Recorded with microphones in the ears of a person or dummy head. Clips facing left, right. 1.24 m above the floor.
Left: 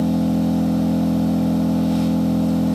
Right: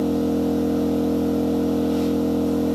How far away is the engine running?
About 2.5 m.